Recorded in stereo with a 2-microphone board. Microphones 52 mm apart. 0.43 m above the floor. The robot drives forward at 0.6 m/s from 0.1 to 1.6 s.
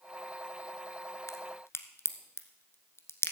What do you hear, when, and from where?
1.3 s a crack: 70° left (ahead or behind), 1.0 m; by 3.3 s 60° left (ahead or behind), 1.0 m